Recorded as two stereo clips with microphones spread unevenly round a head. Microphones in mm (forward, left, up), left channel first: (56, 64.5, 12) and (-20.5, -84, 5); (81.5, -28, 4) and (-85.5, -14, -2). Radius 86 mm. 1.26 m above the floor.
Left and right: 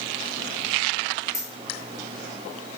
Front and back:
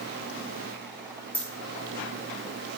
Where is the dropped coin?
60° left, 1.3 m.